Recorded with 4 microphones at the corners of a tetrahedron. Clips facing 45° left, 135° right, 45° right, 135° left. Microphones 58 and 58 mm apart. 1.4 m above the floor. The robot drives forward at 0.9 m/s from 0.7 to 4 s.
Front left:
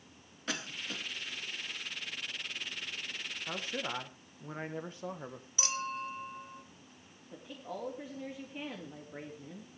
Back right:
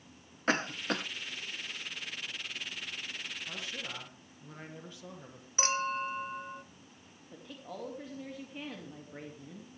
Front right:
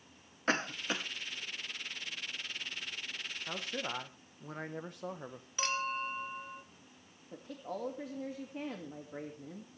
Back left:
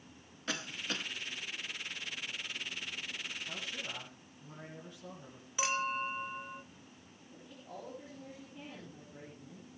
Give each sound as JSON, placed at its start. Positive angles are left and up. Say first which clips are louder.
{"t": 0.5, "sound": "a cough", "louder": "back right 9 dB, front right 6 dB", "azimuth_deg": -90, "distance_m": 0.5}
{"t": 3.5, "sound": "a man speaking", "louder": "front left 8 dB, front right 4 dB", "azimuth_deg": -5, "distance_m": 1.7}
{"t": 5.6, "sound": "a clink", "louder": "back right 5 dB, back left 1 dB", "azimuth_deg": -145, "distance_m": 0.9}
{"t": 7.3, "sound": "a woman speaking", "louder": "front left 2 dB, front right 7 dB", "azimuth_deg": -40, "distance_m": 2.5}